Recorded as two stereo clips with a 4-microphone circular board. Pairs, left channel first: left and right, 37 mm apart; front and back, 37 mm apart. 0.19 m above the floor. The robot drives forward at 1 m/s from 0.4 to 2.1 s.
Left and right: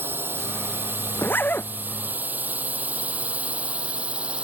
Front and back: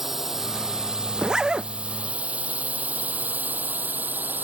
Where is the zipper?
105° left; by 1.7 s 115° left.